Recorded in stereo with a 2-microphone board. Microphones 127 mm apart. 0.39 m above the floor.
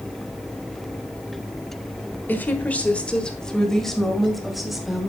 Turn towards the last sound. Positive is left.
turn(degrees=-5)  # may be behind; listen again after turning